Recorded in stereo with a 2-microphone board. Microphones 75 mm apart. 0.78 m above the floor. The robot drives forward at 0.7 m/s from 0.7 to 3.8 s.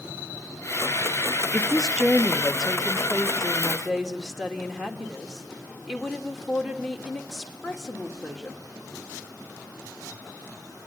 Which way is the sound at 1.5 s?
5° right (ahead or behind).